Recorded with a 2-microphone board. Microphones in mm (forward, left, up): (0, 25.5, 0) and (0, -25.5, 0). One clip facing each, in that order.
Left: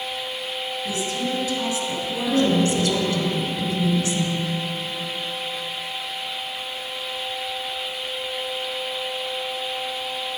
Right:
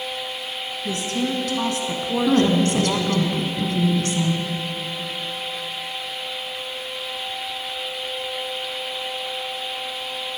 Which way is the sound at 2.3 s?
55° right (ahead or behind).